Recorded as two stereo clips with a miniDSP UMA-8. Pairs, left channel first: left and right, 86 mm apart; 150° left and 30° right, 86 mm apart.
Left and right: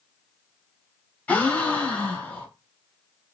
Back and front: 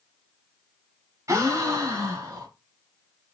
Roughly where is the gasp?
Ahead.